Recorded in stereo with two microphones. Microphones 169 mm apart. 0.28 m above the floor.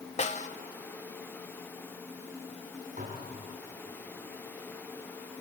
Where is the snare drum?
45° left (ahead or behind), 0.8 m.